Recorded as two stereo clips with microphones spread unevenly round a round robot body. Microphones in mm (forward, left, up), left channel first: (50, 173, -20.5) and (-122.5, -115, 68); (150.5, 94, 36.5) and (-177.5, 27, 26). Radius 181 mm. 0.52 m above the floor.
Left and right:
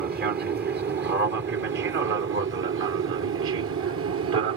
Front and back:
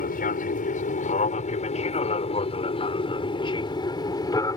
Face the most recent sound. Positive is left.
turn(degrees=-65)